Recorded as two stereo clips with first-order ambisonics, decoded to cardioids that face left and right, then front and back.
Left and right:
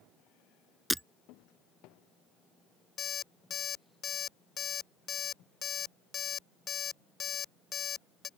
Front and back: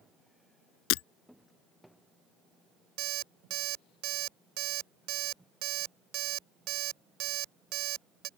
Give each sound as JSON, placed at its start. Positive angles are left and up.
{"t": 0.9, "sound": "breaking glass", "azimuth_deg": 0}
{"t": 3.0, "sound": "an alarm clock", "azimuth_deg": 155}